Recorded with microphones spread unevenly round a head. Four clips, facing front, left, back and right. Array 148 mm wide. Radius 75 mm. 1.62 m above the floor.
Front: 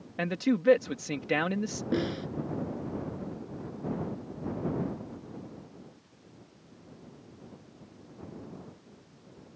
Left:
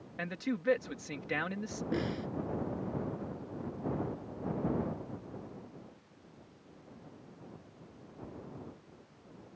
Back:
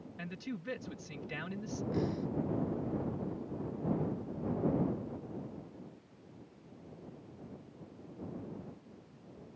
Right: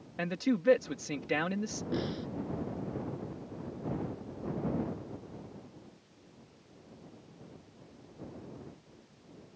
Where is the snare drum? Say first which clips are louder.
Left 1 dB, front 5 dB; straight ahead.